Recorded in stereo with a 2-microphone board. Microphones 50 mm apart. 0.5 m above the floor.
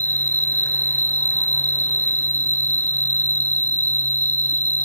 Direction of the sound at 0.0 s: 45° left (ahead or behind).